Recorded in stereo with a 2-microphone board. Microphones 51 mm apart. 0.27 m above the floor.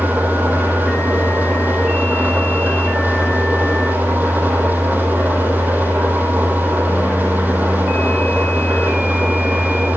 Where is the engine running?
40° right (ahead or behind), 4.5 m.